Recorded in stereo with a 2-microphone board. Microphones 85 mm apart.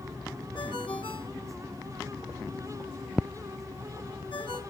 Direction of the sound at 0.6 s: 80° left.